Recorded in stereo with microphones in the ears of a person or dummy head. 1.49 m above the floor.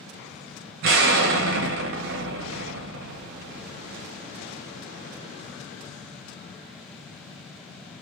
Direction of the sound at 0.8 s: 60° right (ahead or behind).